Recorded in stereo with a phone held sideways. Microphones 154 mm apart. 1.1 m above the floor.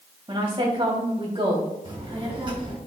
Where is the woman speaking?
40° right (ahead or behind), 2.5 m.